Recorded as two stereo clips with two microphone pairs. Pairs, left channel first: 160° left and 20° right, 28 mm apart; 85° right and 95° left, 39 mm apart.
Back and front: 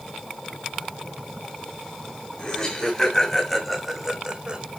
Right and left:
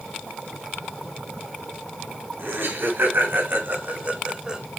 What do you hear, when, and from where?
2.4 s laughter: 95° left, 3.5 m; by 4.6 s 20° left, 1.8 m